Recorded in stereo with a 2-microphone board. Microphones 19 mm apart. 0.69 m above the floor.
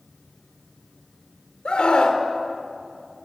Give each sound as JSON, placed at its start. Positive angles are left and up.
{"t": 1.6, "sound": "a scream", "side_deg": 55, "distance_m": 2.5}